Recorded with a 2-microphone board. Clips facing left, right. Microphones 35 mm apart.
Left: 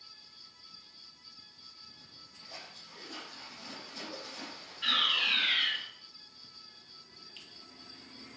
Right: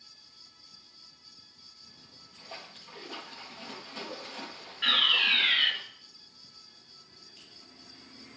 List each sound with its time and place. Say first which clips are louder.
1.9 s a splash: even; 40° right (ahead or behind), 4 m
4.8 s a fire alarm: right 4 dB; 30° right (ahead or behind), 2 m
7.4 s a finger snap: left 5 dB; 60° left (ahead or behind), 2.5 m